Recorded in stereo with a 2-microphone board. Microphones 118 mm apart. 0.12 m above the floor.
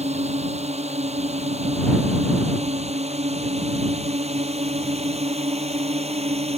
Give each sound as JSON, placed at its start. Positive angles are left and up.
{"t": 0.0, "sound": "a drone", "side_deg": -70}